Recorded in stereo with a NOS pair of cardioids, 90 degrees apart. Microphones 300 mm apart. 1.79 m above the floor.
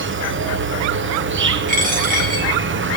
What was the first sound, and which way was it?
An insect, 40° right.